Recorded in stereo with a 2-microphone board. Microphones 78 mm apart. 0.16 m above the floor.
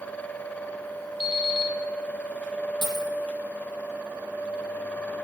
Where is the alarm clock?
75° left (ahead or behind), 2.5 m.